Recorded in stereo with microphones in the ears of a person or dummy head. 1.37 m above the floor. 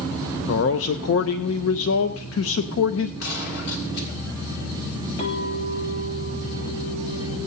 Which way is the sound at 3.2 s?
65° left (ahead or behind).